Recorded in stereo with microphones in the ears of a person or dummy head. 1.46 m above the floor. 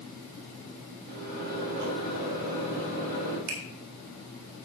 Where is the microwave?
60° right (ahead or behind), 4.5 m.